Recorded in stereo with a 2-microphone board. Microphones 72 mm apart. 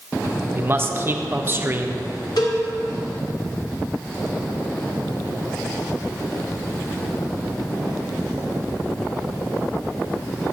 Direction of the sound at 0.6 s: 35° right (ahead or behind).